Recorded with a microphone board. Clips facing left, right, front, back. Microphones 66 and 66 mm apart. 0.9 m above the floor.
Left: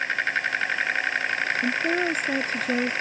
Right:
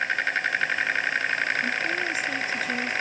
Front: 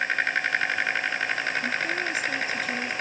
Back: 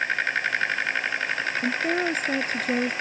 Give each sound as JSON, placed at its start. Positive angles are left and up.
{"t": 1.6, "sound": "a woman speaking", "azimuth_deg": 130}